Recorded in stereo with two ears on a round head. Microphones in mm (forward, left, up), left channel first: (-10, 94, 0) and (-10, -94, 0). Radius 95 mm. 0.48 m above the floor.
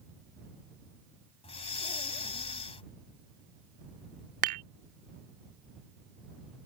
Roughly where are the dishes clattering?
Right.